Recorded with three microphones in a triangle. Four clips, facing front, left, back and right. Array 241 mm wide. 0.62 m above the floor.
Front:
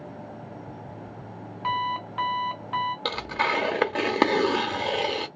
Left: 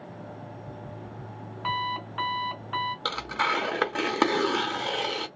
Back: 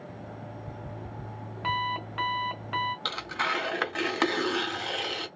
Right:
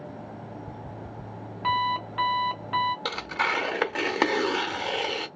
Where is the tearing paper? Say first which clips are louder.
Even, front 5 dB; 10° left, 0.8 m.